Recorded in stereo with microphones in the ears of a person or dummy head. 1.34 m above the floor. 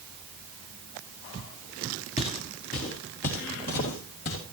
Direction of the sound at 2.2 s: 25° left (ahead or behind).